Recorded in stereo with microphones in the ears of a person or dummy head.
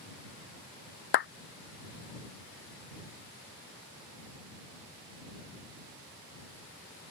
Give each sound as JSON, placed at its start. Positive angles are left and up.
{"t": 1.1, "sound": "a clap", "side_deg": 60}